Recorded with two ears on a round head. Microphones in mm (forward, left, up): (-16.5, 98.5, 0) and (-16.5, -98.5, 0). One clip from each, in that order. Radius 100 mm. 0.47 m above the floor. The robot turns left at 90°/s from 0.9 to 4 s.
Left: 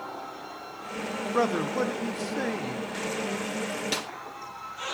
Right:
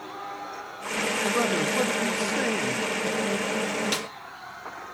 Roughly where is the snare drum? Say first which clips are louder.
Right 1 dB; centre.